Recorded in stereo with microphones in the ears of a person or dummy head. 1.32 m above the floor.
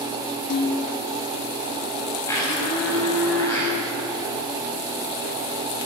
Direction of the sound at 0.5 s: 65° left (ahead or behind).